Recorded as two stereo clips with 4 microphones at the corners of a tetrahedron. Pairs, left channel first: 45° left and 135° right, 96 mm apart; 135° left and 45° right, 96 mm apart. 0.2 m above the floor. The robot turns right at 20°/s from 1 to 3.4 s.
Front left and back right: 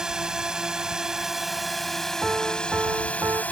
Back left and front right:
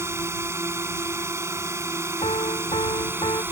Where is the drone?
60° right; by 3.5 s 10° right.